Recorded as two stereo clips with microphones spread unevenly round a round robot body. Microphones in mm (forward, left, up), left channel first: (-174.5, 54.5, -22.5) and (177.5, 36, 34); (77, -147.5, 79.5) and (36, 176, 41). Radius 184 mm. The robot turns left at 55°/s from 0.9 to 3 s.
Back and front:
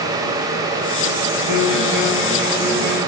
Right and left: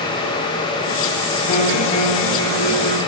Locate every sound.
1.5 s a guitar: 45° right, 9.5 m; by 3.0 s 125° right, 9.5 m